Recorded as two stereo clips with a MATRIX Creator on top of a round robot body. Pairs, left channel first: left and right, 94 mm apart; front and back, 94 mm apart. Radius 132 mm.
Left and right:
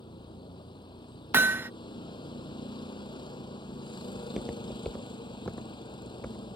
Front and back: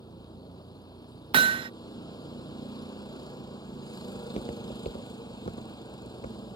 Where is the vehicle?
50° left.